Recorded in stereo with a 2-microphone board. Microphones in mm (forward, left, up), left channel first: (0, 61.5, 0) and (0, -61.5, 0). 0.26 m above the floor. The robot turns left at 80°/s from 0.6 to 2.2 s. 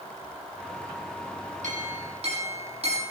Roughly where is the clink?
Right.